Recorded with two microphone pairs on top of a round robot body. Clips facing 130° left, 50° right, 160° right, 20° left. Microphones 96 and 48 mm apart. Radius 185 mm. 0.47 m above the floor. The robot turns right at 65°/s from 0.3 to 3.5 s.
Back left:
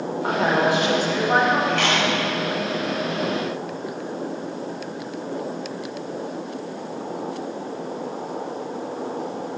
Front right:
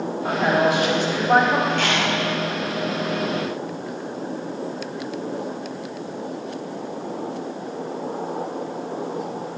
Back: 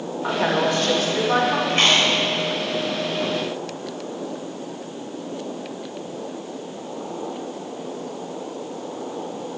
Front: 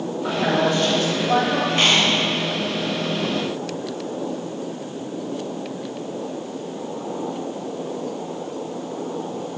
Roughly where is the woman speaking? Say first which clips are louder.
Front right 1 dB, even; behind.